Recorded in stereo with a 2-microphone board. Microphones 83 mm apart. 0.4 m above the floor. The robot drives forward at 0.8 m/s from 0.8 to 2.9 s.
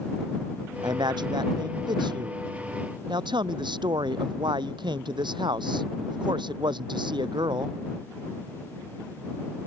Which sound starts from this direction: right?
A man speaking, at 0.8 s.